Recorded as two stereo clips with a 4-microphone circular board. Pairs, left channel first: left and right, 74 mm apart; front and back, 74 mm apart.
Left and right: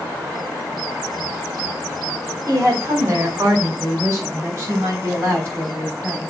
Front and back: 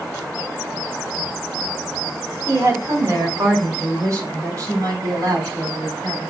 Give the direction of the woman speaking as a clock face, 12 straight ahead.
4 o'clock.